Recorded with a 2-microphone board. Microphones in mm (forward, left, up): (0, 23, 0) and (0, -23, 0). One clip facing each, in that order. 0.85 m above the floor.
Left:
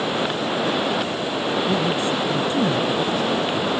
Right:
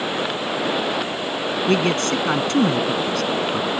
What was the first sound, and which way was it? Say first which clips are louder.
A man speaking: right 2 dB; 80° right.